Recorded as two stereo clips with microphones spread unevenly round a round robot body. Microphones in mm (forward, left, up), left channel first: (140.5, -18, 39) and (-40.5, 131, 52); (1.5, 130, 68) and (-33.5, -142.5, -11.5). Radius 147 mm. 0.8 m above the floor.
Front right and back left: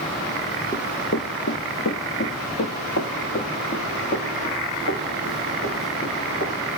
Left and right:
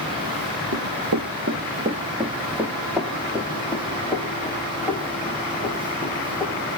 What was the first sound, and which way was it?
Running footsteps, 120° right.